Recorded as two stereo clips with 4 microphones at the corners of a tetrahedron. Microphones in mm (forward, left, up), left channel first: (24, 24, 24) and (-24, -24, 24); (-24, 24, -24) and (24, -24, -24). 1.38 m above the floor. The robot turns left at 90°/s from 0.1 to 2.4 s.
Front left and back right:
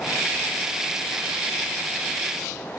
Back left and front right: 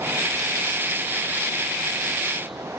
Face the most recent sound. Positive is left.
No sound to turn to.